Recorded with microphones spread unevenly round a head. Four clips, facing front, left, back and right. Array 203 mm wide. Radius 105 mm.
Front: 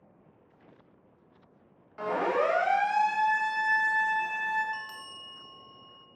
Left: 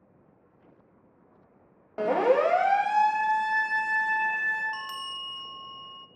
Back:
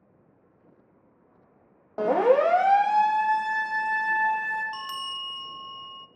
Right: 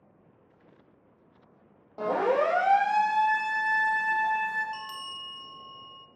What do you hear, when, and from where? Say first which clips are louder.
2.0 s a siren: left 3 dB, back 8 dB; 160° left, 3 m; by 4.6 s 155° right, 6 m
4.7 s a bell: left 2 dB, back 7 dB; straight behind, 0.6 m